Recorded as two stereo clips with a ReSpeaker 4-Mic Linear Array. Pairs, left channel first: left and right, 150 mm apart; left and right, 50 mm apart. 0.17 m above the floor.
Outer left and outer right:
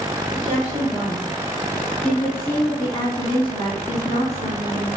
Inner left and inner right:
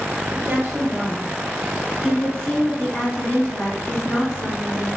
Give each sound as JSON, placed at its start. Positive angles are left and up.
{"t": 0.3, "sound": "a woman speaking", "side_deg": -35, "distance_m": 1.6}